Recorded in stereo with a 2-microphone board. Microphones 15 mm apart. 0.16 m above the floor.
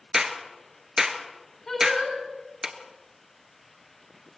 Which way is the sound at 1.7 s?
30° left (ahead or behind).